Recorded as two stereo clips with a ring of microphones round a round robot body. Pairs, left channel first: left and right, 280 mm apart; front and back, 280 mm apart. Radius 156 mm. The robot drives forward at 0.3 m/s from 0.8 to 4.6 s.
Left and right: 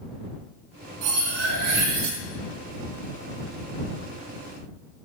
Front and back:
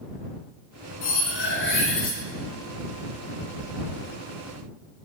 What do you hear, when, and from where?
1.0 s cutlery clinking: 50° right, 1.3 m; by 2.2 s 65° right, 1.1 m